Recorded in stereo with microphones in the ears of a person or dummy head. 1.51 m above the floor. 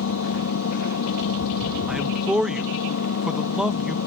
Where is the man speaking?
5° right (ahead or behind).